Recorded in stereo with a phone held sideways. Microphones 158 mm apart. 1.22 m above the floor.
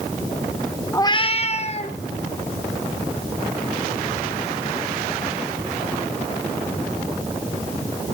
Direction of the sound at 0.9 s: 20° left (ahead or behind).